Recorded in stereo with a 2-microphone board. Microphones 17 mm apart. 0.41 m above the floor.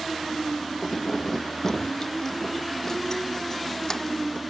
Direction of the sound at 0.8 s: 30° left (ahead or behind).